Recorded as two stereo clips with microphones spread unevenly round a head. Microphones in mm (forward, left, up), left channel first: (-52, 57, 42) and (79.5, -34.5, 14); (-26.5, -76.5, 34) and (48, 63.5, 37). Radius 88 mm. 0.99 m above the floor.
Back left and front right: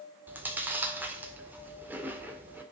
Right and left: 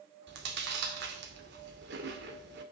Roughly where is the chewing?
Ahead left.